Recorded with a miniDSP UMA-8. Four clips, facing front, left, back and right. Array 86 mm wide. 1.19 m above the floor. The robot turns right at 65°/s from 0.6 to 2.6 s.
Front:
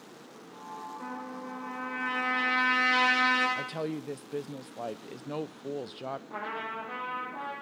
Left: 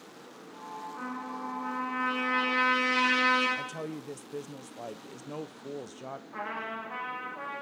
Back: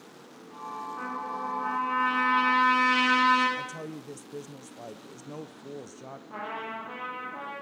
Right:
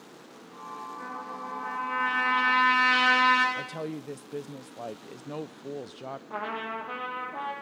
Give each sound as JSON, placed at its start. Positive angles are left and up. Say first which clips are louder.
{"t": 1.0, "sound": "a trumpet", "louder": "left 3 dB, back 8 dB", "azimuth_deg": 145, "distance_m": 9.5}
{"t": 3.5, "sound": "a woman speaking", "louder": "right 2 dB, front 3 dB", "azimuth_deg": -20, "distance_m": 0.5}
{"t": 6.3, "sound": "a trumpet", "louder": "right 3 dB, even", "azimuth_deg": -100, "distance_m": 7.5}